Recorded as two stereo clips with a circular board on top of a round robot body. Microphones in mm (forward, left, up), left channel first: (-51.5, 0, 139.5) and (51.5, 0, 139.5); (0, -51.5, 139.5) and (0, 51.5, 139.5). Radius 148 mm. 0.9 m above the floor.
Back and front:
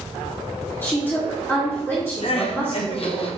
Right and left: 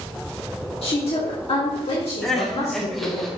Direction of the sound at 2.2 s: 175° right.